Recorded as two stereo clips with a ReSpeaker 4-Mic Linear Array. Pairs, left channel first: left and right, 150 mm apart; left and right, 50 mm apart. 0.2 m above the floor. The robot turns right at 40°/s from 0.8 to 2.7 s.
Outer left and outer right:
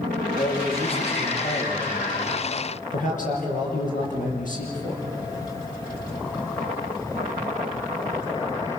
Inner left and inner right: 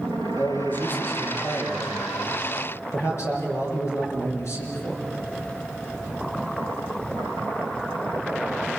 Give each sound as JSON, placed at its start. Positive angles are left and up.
{"t": 0.4, "sound": "a man speaking", "azimuth_deg": 40, "distance_m": 6.0}